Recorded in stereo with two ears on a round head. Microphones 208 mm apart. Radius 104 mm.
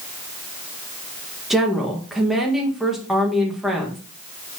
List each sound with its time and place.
1.5 s a woman speaking: centre (ahead or behind), 1.4 m